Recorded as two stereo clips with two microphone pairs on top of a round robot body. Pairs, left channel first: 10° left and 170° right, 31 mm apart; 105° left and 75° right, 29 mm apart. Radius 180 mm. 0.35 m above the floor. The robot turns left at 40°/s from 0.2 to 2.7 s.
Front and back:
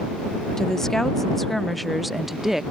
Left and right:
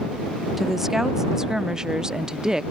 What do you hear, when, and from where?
0.6 s a woman speaking: 10° right; by 2.6 s 95° right